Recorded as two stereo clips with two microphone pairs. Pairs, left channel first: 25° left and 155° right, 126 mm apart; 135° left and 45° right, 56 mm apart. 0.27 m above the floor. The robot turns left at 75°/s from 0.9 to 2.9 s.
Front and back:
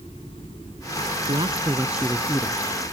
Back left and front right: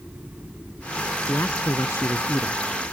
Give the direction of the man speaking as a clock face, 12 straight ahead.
6 o'clock.